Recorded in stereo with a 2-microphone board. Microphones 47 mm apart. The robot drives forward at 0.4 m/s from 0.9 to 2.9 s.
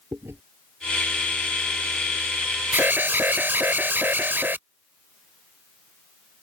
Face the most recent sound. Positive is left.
turn(degrees=-45)  # may be behind; listen again after turning